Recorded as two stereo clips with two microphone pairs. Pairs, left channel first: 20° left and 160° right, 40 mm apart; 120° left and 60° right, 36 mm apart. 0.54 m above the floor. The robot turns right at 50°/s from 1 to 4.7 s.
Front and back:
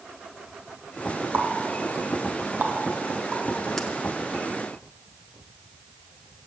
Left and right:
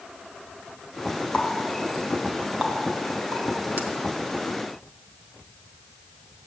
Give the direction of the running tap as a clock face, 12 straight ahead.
6 o'clock.